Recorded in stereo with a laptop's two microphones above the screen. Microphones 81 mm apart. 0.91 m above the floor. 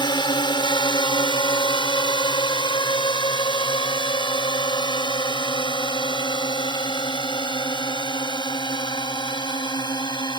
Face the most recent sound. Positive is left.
turn(degrees=65)  # may be behind; listen again after turning